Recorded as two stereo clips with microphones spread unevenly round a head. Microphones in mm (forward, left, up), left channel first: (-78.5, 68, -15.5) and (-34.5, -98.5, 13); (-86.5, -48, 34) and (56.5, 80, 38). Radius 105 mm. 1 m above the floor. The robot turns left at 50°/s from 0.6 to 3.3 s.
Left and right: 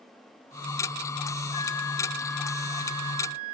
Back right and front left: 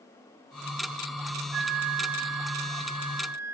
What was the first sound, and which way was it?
A flute, 55° left.